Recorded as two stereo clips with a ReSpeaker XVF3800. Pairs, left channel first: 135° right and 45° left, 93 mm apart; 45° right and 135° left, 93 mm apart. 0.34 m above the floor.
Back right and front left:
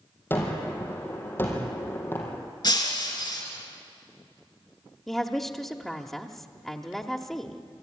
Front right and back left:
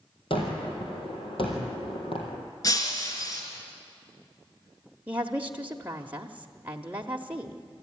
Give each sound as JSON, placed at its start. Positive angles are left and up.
{"t": 0.3, "sound": "a gunshot", "azimuth_deg": -70, "distance_m": 3.5}
{"t": 2.6, "sound": "breaking glass", "azimuth_deg": -95, "distance_m": 2.5}
{"t": 5.1, "sound": "a woman speaking", "azimuth_deg": 145, "distance_m": 0.9}